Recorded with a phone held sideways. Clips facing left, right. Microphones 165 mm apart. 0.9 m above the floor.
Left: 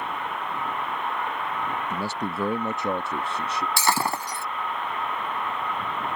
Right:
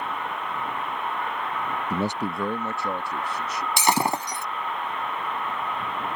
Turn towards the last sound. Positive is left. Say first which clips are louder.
# right 3 dB
turn(degrees=-20)  # may be behind; listen again after turning